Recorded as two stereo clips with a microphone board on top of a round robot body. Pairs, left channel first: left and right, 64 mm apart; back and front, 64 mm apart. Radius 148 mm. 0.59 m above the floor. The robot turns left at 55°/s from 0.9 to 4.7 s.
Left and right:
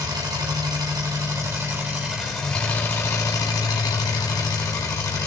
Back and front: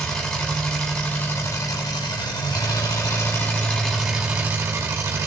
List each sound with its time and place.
0.0 s an engine running: 100° right, 2 m; by 5.3 s 50° left, 2 m